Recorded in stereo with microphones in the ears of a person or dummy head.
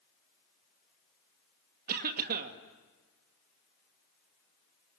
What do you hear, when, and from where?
1.9 s a cough: 45° right (ahead or behind), 2 m